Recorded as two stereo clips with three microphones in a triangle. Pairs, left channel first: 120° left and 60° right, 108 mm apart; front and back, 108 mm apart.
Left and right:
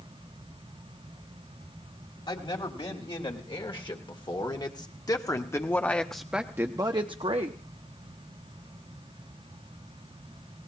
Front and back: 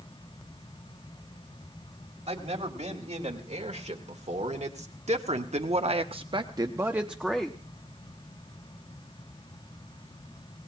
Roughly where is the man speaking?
Behind.